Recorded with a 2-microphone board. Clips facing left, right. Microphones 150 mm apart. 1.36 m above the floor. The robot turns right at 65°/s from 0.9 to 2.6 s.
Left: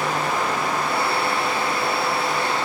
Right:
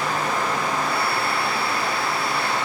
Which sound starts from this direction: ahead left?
Running water, at 0.0 s.